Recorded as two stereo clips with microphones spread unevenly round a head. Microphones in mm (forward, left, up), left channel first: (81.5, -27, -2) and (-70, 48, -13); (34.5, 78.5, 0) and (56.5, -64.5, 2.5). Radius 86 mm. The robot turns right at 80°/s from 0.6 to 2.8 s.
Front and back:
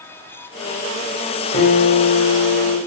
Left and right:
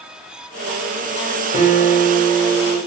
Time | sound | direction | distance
1.5 | a guitar | 30° right | 2 m